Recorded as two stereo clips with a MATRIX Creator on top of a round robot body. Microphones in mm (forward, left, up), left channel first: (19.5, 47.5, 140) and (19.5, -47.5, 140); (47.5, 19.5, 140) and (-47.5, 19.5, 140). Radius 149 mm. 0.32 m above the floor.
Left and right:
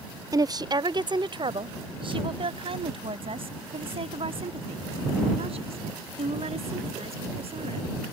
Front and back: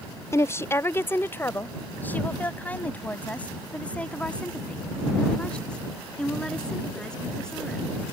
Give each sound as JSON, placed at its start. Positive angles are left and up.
{"t": 0.3, "sound": "a woman speaking", "azimuth_deg": -50}